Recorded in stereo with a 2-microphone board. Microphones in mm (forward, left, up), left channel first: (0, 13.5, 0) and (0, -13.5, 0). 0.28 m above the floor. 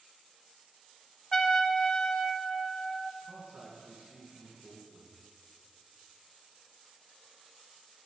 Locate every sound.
1.3 s a trumpet: 20° left (ahead or behind), 0.6 m
3.2 s a man speaking: 65° right (ahead or behind), 3 m